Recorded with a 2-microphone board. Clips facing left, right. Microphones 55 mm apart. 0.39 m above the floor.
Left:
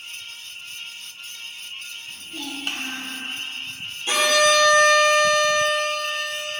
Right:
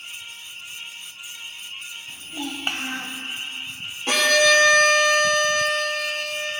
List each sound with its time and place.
2.1 s a child speaking: 20° right (ahead or behind), 1.2 m; by 3.2 s 55° right (ahead or behind), 1.1 m
4.1 s a violin: 50° right (ahead or behind), 2.5 m